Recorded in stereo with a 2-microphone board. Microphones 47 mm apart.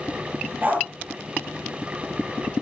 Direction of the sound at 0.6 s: 35° right (ahead or behind).